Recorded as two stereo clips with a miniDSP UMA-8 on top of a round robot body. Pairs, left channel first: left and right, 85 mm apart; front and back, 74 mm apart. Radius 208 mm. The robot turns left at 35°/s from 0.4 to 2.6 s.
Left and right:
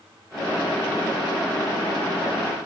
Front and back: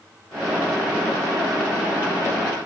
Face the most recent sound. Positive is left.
No sound to turn to.